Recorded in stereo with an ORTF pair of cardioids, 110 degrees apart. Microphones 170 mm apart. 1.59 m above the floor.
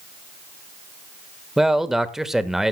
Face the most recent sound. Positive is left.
turn(degrees=0)